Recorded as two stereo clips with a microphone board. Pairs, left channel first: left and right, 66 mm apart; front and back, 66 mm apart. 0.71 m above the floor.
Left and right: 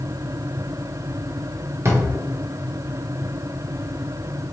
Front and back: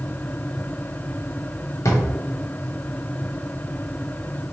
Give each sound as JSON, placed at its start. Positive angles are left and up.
{"t": 1.9, "sound": "a drawer", "azimuth_deg": -40, "distance_m": 0.9}